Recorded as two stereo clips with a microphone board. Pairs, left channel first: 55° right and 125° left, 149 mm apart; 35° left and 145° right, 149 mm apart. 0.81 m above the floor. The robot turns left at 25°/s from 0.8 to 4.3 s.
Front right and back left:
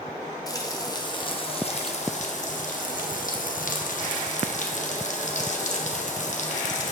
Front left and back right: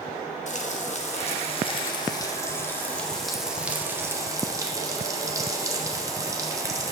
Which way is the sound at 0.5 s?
5° left.